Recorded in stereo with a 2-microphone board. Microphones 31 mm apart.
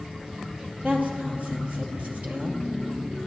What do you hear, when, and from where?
0.8 s a woman speaking: 55° right (ahead or behind), 2.5 m